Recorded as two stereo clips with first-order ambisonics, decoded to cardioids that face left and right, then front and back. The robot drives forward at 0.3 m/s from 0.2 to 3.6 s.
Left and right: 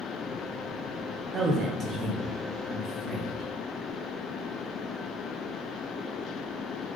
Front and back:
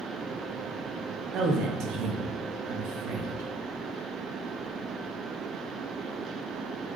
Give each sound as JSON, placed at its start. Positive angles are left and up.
{"t": 1.3, "sound": "a man speaking", "azimuth_deg": -145, "distance_m": 0.5}